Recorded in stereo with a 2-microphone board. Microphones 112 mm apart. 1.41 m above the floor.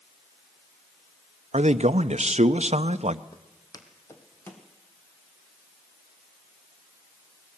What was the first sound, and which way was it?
A man speaking, 80° right.